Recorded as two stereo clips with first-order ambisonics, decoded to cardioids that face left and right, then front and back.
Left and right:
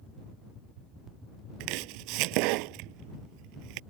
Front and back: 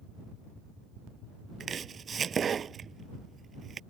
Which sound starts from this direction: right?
Chopping, at 1.6 s.